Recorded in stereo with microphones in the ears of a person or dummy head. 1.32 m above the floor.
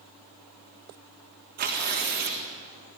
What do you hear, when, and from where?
1.6 s tearing paper: 55° right (ahead or behind), 3.5 m